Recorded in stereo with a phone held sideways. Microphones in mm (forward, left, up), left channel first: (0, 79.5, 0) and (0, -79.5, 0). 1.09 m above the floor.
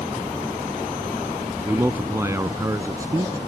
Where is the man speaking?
15° right (ahead or behind); by 3.4 s 20° right (ahead or behind).